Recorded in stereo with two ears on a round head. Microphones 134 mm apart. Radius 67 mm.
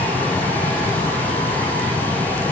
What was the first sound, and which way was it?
Only background noise.